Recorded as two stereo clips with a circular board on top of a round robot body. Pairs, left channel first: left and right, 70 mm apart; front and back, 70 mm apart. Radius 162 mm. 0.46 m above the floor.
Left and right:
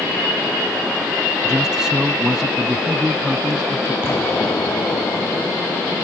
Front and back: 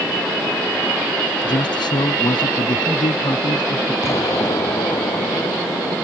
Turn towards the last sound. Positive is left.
turn(degrees=35)